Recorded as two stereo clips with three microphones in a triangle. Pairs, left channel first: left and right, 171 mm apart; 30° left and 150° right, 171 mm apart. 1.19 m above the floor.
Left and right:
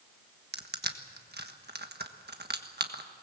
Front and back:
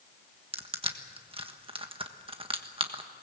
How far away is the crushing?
About 1.4 m.